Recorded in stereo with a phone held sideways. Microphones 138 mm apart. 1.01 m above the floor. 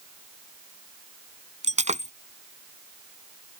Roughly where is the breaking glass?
Right.